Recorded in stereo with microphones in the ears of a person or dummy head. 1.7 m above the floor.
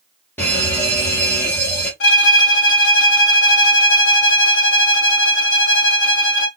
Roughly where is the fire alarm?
Centre.